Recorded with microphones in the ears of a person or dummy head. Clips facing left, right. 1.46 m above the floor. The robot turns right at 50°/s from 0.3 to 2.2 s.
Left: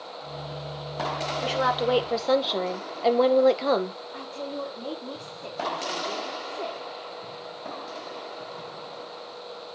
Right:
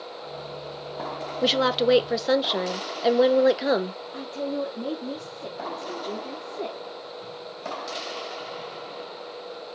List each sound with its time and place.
1.4 s a woman speaking: 55° right, 1.3 m; by 4.0 s 15° right, 1.3 m
4.1 s a woman speaking: 30° right (ahead or behind), 3.5 m